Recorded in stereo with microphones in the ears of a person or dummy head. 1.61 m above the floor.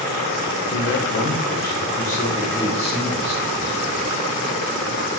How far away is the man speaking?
About 1.2 m.